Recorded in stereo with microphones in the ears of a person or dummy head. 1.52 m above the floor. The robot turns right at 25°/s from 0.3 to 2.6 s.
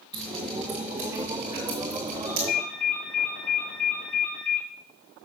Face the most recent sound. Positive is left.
turn(degrees=55)  # may be behind; listen again after turning